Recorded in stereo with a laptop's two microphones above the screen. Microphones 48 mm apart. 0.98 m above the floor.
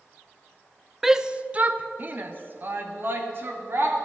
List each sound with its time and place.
1.0 s a shout: 5° right (ahead or behind), 0.5 m; by 4.0 s 50° right (ahead or behind), 2.5 m